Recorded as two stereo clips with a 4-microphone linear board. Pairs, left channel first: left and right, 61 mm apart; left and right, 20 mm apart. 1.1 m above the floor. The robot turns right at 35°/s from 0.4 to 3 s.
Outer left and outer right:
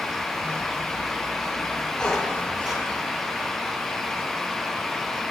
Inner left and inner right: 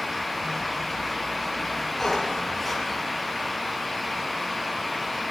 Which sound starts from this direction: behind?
A squeak, at 2.0 s.